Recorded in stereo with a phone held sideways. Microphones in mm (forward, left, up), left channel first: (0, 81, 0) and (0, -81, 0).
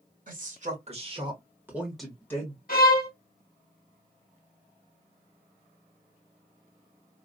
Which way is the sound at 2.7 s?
60° left (ahead or behind).